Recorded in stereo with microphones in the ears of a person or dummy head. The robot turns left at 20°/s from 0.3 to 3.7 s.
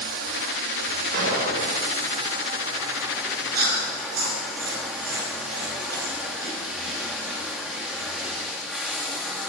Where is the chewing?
65° right (ahead or behind), 6 m; by 8.3 s 70° right (ahead or behind), 6 m.